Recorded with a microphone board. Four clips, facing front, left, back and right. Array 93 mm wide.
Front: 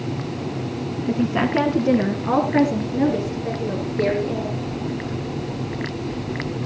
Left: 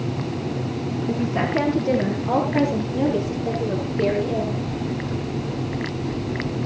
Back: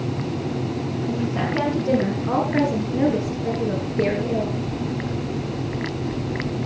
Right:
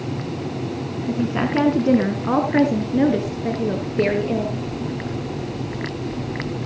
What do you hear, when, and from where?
1.1 s a woman speaking: 25° right, 2 m; by 4.6 s 105° right, 4.5 m